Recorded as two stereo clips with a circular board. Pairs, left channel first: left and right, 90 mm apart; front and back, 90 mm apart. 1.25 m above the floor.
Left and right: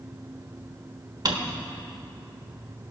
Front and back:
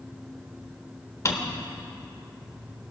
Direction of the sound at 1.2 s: 50° right.